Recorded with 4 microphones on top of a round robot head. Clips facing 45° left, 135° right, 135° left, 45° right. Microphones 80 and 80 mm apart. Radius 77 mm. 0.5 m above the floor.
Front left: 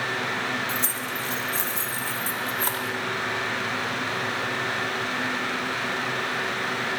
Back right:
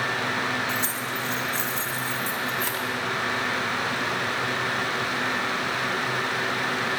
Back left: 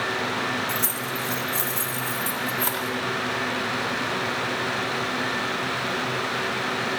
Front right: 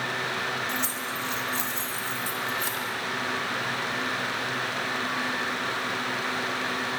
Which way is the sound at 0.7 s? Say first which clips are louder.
Back right 1 dB, back left 3 dB; 90° left.